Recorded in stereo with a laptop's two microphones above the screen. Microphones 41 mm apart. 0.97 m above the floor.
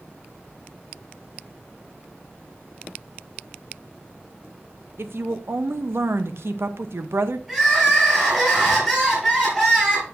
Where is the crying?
10° right (ahead or behind), 3.5 m.